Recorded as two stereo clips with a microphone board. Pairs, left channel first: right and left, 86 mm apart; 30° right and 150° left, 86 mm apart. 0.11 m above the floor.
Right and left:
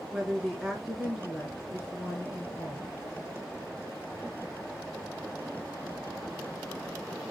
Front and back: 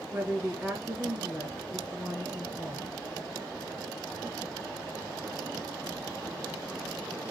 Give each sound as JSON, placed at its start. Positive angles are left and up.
{"t": 0.1, "sound": "a woman speaking", "azimuth_deg": 170, "distance_m": 1.7}